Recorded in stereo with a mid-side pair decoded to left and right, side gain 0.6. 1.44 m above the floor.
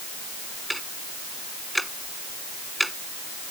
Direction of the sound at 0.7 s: 5° right.